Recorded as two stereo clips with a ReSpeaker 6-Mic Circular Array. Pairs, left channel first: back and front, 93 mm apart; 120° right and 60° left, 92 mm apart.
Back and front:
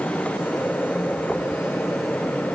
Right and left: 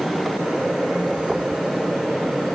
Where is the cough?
No cough in this recording.